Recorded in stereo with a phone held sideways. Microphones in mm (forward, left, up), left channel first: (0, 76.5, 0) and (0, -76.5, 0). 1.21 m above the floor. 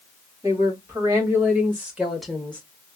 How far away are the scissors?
I don't hear scissors.